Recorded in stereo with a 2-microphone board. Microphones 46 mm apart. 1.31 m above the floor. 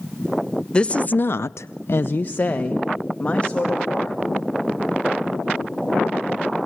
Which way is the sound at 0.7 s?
20° left (ahead or behind).